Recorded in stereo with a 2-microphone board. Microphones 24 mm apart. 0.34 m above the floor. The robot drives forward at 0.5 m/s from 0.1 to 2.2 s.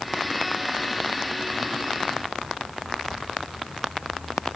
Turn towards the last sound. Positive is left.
No sound to turn to.